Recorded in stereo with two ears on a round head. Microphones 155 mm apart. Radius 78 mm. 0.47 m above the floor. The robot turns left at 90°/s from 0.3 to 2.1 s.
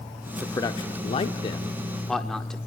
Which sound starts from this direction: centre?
A man speaking, at 0.4 s.